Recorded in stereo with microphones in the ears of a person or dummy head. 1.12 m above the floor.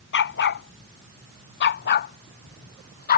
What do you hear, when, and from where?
0.1 s a dog barking: 55° left (ahead or behind); by 3.2 s 45° left (ahead or behind)